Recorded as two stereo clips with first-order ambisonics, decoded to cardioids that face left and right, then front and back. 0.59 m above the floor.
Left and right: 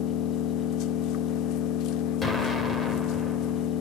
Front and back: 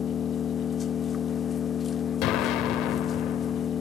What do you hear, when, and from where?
0.0 s an engine running: 65° left, 0.8 m
2.2 s an explosion: 15° left, 2 m